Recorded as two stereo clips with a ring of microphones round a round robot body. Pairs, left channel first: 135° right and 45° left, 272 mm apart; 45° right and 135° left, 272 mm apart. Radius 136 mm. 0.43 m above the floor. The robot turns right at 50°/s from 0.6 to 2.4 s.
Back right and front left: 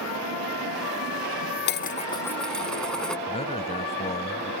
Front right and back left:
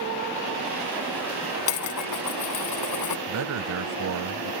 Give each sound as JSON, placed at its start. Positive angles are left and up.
{"t": 1.7, "sound": "dishes clattering", "azimuth_deg": -85}
{"t": 3.3, "sound": "a man speaking", "azimuth_deg": 160}